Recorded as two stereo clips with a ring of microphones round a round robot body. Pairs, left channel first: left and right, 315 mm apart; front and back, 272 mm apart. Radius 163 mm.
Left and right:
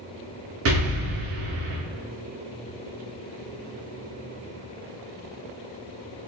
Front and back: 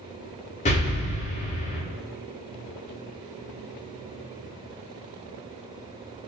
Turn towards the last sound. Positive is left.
turn(degrees=-60)